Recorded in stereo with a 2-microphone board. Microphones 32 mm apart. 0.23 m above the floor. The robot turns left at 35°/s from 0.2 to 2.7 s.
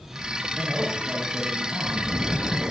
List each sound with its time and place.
0.6 s a man speaking: 35° right, 5.5 m; by 2.7 s 110° right, 5.5 m